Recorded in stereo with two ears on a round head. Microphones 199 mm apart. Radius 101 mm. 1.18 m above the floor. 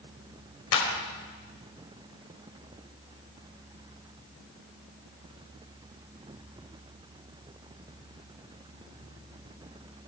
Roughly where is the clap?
Left.